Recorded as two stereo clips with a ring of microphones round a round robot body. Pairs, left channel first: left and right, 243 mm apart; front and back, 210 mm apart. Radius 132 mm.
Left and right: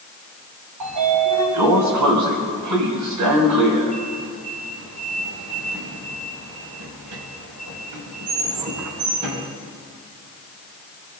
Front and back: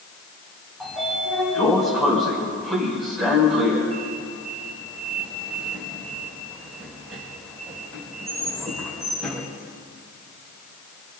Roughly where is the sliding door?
Right.